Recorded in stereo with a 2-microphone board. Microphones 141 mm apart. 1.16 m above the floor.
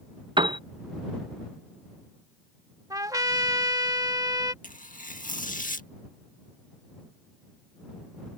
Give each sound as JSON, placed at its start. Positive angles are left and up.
{"t": 0.4, "sound": "a piano", "side_deg": -35}
{"t": 2.9, "sound": "a trumpet", "side_deg": -25}
{"t": 4.6, "sound": "tearing paper", "side_deg": 65}